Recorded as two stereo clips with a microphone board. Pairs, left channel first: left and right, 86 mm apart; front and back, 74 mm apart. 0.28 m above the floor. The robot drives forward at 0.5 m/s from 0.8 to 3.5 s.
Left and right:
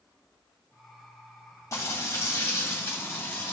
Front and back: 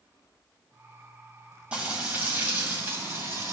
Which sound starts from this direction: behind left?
Frying, at 1.7 s.